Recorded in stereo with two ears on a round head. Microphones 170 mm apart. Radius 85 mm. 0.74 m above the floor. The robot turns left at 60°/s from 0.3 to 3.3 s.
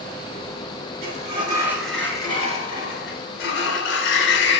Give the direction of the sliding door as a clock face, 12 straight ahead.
4 o'clock.